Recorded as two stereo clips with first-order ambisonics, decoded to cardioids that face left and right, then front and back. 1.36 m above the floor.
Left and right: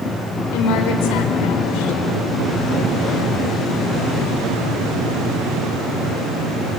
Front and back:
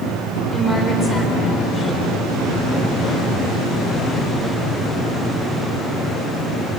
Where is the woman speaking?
75° left, 4 m.